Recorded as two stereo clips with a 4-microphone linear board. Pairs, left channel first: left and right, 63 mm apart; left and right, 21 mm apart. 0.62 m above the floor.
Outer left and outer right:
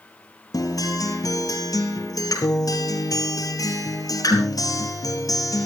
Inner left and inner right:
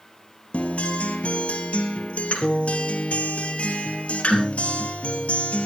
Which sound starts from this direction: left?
A guitar, at 0.5 s.